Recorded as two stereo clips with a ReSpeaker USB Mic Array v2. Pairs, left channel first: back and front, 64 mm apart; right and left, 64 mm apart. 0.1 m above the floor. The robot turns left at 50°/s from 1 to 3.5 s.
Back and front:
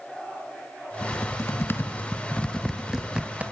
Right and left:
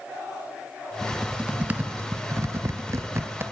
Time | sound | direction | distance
1.0 | typing on a keyboard | 175° left | 1.5 m